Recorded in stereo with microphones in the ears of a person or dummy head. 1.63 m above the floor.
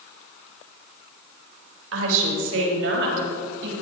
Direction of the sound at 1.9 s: 85° right.